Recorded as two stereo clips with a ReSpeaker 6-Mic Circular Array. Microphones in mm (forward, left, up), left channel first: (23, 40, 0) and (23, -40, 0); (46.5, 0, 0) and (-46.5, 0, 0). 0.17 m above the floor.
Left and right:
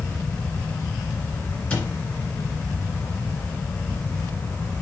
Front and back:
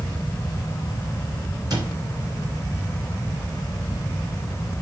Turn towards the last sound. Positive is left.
turn(degrees=160)